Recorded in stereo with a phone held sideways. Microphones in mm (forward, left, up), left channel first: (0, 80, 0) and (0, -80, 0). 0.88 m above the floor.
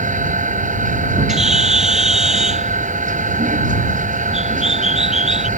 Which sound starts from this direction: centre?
A bird, at 1.3 s.